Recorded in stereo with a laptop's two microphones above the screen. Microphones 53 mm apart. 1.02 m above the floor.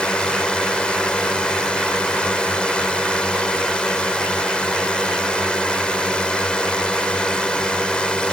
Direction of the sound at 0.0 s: 15° left (ahead or behind).